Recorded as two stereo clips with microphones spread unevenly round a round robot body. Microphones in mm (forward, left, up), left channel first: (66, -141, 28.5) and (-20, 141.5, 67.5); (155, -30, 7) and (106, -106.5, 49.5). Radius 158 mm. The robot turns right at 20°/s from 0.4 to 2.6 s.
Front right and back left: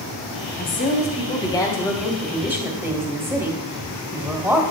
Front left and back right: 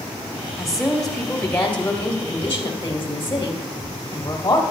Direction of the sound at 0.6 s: 20° right.